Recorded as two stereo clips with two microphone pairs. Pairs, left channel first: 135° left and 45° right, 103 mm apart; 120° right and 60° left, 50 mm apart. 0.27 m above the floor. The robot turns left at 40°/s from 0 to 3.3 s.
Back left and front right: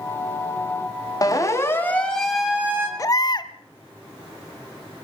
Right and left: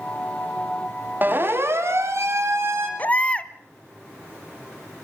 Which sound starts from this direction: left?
A siren, at 1.2 s.